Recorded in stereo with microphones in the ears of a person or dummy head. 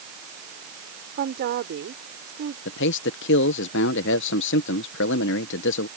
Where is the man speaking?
70° left (ahead or behind).